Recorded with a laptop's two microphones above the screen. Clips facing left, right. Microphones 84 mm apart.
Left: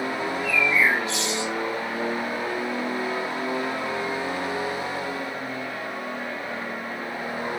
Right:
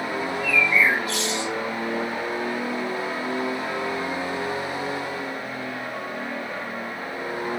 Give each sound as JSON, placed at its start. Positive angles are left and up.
{"t": 0.2, "sound": "a bird", "side_deg": 30, "distance_m": 3.0}